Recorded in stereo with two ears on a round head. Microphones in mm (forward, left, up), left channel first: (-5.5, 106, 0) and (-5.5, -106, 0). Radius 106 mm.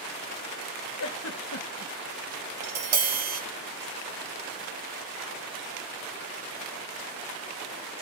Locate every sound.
1.0 s a giggle: 65° left (ahead or behind), 1.0 m
2.6 s tapping: 45° right (ahead or behind), 1.8 m